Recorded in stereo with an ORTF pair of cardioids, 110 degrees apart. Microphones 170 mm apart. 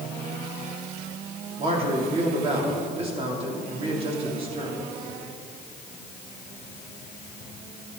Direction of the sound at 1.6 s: 35° right.